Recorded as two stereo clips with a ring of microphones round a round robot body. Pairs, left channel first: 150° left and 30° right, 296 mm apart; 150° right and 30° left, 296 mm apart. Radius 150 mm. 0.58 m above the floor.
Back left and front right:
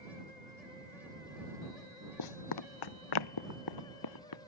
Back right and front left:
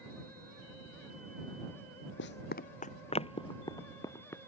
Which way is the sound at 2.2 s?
160° left.